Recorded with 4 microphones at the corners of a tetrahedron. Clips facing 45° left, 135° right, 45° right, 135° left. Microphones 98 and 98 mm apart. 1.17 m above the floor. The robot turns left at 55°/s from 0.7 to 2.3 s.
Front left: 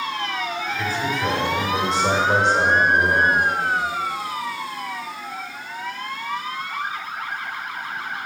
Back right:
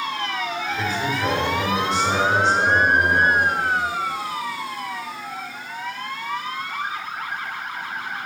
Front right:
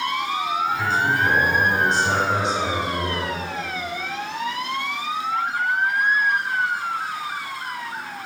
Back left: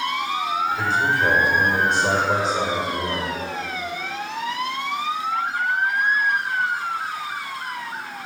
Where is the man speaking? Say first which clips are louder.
Even, even; 165° left, 1.7 m; by 3.4 s 80° left, 1.7 m.